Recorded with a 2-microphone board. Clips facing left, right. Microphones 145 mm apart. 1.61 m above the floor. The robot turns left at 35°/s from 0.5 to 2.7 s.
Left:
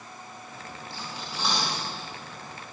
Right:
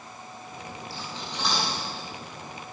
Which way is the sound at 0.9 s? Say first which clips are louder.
Left 1 dB; 20° left (ahead or behind).